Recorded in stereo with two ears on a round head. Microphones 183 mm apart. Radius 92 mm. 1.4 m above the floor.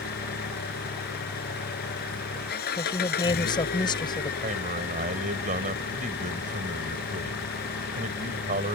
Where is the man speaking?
40° right (ahead or behind).